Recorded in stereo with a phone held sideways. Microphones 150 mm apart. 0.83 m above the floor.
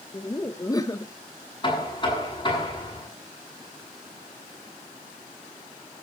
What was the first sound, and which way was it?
Laughter, 25° left (ahead or behind).